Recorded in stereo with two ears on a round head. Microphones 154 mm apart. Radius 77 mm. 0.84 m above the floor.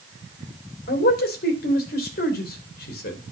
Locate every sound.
0.9 s a man speaking: 60° left (ahead or behind), 3 m